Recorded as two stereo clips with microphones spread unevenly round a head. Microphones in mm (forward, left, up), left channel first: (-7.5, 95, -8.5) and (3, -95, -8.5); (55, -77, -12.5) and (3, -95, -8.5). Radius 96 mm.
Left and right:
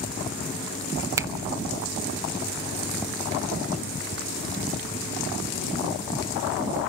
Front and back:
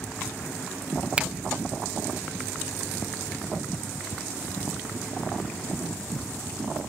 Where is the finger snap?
140° right, 0.7 m.